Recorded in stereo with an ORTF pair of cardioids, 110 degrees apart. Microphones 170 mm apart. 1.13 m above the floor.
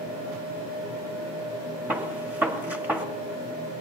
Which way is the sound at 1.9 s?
10° right.